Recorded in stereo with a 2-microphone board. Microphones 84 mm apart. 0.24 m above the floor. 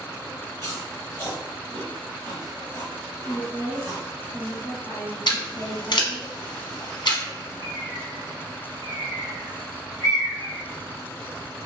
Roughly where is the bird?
Left.